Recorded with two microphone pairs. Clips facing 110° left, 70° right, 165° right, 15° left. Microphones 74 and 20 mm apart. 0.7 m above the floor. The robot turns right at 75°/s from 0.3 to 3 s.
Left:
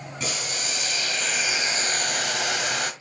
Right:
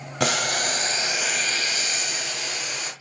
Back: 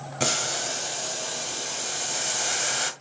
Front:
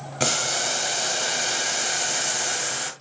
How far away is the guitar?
No guitar in this recording.